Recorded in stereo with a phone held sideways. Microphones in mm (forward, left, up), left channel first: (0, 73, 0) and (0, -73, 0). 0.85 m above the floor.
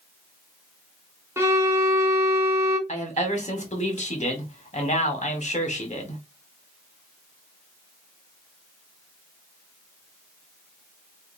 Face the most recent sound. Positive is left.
turn(degrees=55)  # may be behind; listen again after turning